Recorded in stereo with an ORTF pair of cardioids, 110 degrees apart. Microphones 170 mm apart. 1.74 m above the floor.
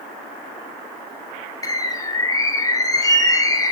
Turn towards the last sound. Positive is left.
turn(degrees=20)